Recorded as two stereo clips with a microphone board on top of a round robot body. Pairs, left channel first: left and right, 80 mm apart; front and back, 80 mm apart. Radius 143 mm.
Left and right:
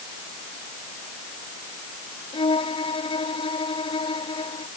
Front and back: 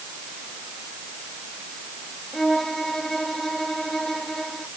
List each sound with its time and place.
2.3 s a violin: 85° left